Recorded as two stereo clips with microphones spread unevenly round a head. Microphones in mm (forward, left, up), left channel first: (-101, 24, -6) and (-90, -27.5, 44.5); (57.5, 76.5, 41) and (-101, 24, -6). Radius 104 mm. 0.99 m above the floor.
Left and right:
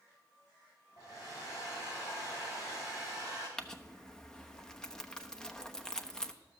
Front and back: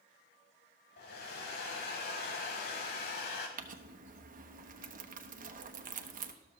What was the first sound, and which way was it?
A hair dryer, 20° left.